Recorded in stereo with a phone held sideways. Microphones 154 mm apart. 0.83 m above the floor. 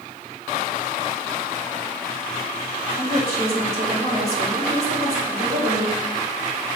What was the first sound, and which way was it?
A woman speaking, 85° right.